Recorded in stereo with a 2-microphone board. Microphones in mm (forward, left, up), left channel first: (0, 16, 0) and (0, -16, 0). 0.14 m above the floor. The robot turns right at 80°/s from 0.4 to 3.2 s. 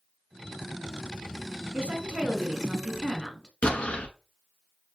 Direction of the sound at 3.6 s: 40° left (ahead or behind).